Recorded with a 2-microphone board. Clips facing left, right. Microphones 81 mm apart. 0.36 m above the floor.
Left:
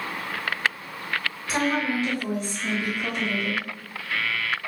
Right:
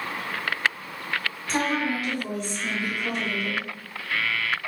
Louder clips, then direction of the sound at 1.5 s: Left 1 dB; 5° left (ahead or behind).